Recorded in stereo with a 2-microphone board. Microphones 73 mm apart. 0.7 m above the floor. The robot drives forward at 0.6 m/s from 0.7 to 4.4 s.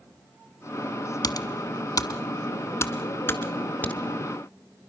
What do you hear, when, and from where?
1.2 s typing on a keyboard: 60° left (ahead or behind), 0.9 m; by 4.1 s 25° left (ahead or behind), 1.9 m
3.8 s a crack: 25° left (ahead or behind), 1.3 m; by 4.0 s 20° left (ahead or behind), 1.4 m